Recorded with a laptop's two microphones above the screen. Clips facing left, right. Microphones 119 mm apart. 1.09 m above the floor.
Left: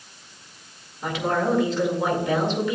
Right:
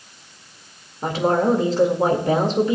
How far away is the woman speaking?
About 1.9 m.